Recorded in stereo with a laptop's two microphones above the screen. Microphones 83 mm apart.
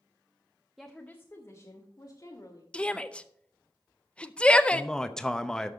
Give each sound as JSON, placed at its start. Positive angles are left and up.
{"t": 0.8, "sound": "a woman speaking", "side_deg": 0, "distance_m": 0.5}
{"t": 2.7, "sound": "a shout", "side_deg": 15, "distance_m": 0.6}
{"t": 4.7, "sound": "a man speaking", "side_deg": 10, "distance_m": 0.6}